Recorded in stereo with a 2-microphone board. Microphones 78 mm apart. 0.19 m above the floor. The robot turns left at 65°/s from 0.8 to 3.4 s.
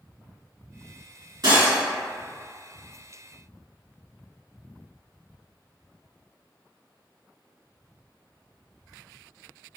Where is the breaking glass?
55° right (ahead or behind), 1.3 m; by 1.8 s 40° right (ahead or behind), 1.3 m.